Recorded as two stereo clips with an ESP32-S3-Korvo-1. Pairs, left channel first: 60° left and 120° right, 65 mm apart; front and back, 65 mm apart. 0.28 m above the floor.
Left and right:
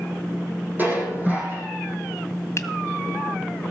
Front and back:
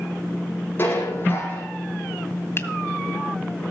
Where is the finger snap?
35° left, 1.7 m.